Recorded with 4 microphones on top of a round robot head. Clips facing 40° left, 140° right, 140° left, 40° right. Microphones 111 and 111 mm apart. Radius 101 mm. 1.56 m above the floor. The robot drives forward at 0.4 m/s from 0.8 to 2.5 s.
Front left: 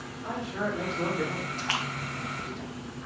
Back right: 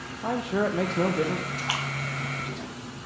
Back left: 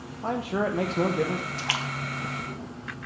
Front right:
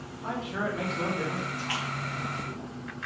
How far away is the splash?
About 0.8 m.